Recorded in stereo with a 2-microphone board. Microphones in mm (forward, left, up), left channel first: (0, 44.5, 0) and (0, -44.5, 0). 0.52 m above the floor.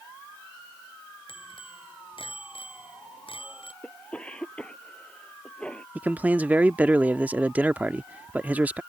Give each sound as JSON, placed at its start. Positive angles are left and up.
{"t": 1.3, "sound": "a bicycle bell", "side_deg": 80}
{"t": 3.8, "sound": "a cough", "side_deg": 15}
{"t": 6.0, "sound": "a man speaking", "side_deg": -20}